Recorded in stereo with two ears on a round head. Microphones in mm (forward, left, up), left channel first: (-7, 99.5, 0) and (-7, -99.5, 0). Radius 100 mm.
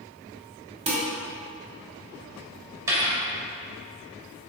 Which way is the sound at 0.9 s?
30° right (ahead or behind).